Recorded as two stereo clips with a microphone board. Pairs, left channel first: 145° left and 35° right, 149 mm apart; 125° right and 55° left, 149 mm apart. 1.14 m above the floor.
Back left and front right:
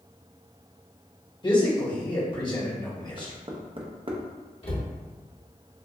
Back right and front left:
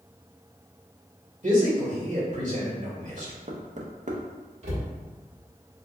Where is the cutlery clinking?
I don't hear cutlery clinking.